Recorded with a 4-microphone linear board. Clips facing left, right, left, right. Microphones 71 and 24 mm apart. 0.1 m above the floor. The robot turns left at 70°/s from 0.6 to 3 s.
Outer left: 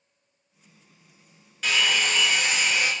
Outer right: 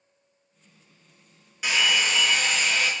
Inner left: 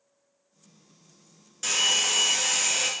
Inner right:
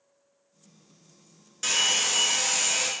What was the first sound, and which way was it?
A hair dryer, 15° right (ahead or behind).